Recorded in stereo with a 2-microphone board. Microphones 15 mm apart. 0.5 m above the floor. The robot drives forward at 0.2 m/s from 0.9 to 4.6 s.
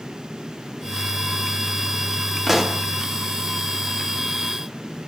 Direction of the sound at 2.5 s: 10° right (ahead or behind).